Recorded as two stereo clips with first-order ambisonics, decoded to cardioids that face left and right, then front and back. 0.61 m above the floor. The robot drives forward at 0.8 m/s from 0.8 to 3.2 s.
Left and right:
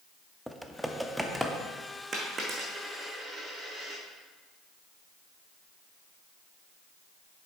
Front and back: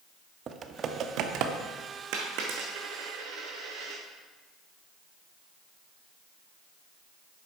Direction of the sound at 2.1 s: 155° right.